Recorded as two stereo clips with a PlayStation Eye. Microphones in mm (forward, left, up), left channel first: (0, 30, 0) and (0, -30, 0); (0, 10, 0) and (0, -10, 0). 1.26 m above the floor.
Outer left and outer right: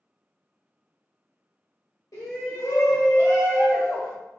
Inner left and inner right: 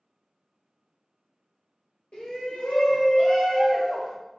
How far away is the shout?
About 1.9 m.